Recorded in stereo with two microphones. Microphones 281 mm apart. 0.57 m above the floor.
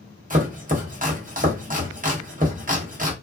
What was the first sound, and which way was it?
Chopping, 30° right (ahead or behind).